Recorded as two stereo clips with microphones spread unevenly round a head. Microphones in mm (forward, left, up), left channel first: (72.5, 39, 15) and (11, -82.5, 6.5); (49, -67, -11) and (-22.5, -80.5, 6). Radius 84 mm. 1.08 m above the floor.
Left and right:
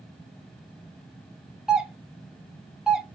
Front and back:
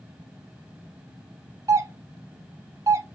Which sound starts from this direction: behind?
A doorbell, at 1.7 s.